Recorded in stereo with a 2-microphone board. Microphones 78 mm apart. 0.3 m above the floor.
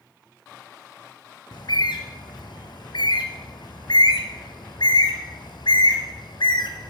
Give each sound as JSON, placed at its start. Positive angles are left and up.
{"t": 1.5, "sound": "a bird", "side_deg": 70, "distance_m": 1.3}